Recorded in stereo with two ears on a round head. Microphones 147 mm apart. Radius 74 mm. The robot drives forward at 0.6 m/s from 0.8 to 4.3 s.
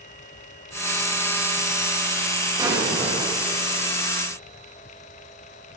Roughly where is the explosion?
Right.